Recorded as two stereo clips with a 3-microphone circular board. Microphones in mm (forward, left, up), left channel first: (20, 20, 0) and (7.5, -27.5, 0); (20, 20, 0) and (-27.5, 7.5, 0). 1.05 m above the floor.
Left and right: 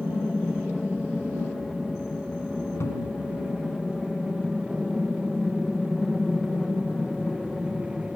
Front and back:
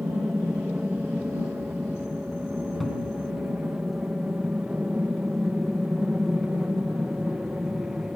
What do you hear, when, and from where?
0.0 s an aircraft: 150° left; by 8.2 s 175° left
2.8 s a cupboard door: 100° left